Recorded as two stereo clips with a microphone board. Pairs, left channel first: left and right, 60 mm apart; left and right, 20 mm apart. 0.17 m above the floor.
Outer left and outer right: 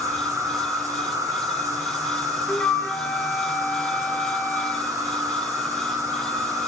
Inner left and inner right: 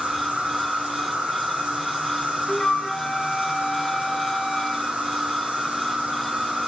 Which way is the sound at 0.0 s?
55° right (ahead or behind).